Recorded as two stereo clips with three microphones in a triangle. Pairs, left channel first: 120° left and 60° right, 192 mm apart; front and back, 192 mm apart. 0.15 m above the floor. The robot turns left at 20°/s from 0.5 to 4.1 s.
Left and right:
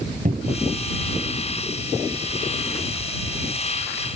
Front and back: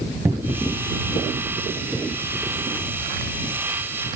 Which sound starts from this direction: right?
A cupboard door, at 0.2 s.